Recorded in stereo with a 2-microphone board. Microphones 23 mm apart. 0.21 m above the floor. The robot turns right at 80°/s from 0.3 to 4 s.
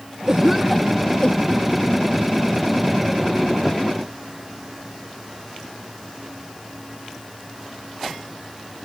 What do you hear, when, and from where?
0.3 s a cough: 35° right (ahead or behind); by 1.7 s 75° left (ahead or behind)